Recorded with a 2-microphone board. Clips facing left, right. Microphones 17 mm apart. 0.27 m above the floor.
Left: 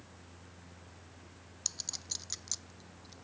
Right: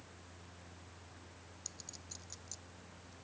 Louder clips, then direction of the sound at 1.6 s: Left 13 dB; 55° left (ahead or behind).